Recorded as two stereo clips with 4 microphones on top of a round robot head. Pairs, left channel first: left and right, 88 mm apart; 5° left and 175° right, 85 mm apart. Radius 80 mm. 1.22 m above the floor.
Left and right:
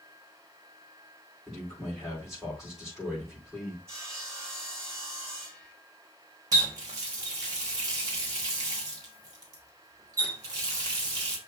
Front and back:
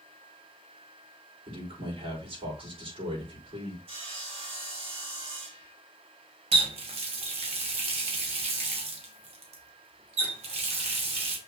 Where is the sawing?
155° right, 1.8 m.